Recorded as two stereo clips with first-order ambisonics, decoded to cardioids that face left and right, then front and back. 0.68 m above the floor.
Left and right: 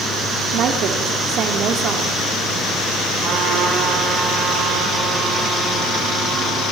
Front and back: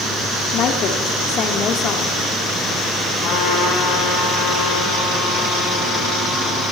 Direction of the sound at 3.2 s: 35° right.